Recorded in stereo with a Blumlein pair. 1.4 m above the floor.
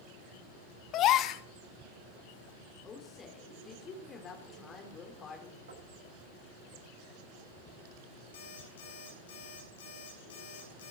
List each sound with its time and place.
0.9 s a gasp: 35° left, 1.0 m
2.8 s a woman speaking: 20° left, 4 m
5.7 s knocking: 65° right, 7 m
8.3 s an alarm clock: 60° left, 6.5 m